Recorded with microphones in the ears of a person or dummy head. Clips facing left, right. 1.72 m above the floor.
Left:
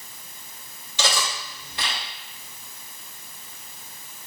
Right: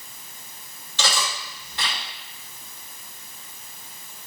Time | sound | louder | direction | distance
1.0 | cutlery clinking | left 1 dB | 10° left (ahead or behind) | 1.6 m